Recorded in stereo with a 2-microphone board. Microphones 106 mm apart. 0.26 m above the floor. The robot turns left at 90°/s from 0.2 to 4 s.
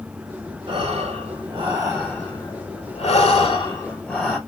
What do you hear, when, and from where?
0.7 s breathing: 55° right, 1.2 m; by 4.4 s 5° left, 1.2 m